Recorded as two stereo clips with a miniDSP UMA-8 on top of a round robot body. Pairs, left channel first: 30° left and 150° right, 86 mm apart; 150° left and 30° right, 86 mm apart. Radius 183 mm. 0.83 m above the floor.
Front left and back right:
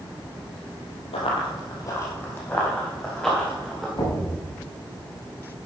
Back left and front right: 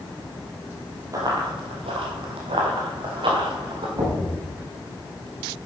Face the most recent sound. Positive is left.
turn(degrees=-10)